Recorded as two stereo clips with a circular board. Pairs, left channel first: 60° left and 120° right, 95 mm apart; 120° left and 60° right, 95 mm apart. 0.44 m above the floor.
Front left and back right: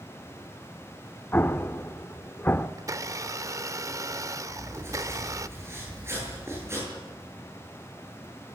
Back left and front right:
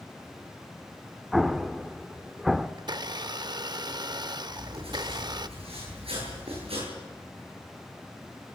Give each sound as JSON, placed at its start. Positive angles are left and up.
{"t": 1.3, "sound": "an explosion", "azimuth_deg": 25, "distance_m": 0.8}
{"t": 2.8, "sound": "a blender", "azimuth_deg": -75, "distance_m": 0.6}
{"t": 4.5, "sound": "writing", "azimuth_deg": -60, "distance_m": 10.0}